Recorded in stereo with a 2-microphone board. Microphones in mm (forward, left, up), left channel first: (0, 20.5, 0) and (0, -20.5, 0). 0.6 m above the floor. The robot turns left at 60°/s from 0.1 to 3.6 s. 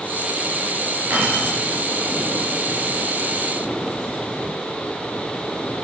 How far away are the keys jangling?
About 6 m.